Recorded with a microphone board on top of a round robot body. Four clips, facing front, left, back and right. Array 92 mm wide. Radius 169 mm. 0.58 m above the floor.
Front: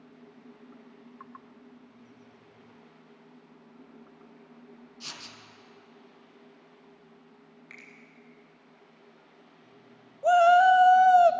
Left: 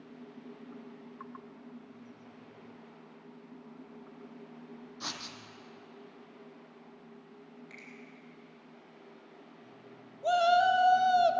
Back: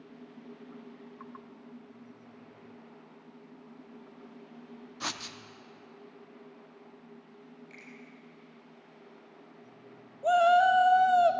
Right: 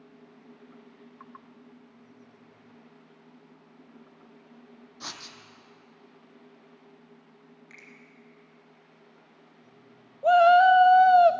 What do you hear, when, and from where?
5.0 s writing: straight behind, 1.0 m
7.7 s a finger snap: 10° right, 3 m
10.2 s a shout: 65° right, 0.7 m